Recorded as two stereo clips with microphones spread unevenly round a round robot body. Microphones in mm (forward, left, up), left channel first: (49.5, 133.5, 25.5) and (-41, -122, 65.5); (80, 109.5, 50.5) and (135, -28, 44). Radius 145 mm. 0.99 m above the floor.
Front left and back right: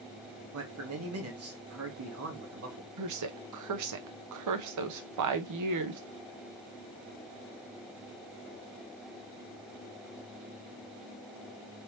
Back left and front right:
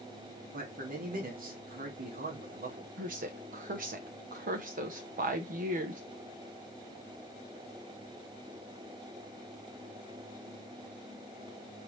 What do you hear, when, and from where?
0.5 s a man speaking: 70° right, 1.5 m
3.0 s a woman speaking: 90° right, 0.9 m